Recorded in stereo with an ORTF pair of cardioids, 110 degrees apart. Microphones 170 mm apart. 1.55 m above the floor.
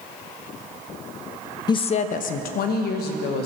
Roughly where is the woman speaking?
Ahead left.